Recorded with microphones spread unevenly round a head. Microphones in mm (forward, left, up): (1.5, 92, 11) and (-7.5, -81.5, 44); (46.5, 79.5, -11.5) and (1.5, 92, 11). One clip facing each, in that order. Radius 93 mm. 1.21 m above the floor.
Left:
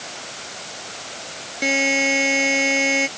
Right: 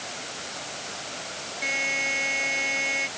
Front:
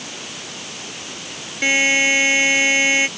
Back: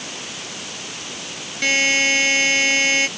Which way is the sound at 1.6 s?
60° left.